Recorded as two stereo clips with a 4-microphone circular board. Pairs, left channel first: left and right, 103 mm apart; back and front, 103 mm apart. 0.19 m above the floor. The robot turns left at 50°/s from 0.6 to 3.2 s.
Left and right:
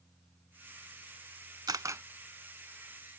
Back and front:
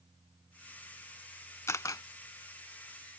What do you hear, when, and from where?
1.7 s a camera shutter: 125° right; by 2.0 s 145° right